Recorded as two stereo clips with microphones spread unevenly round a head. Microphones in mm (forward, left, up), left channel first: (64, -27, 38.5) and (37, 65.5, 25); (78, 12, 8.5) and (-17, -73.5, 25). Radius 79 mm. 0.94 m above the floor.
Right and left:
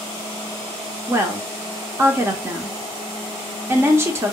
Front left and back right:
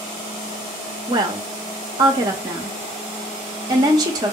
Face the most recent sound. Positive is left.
turn(degrees=160)